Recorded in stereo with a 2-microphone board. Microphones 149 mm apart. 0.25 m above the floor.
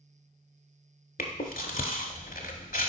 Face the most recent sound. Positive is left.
turn(degrees=70)  # may be behind; listen again after turning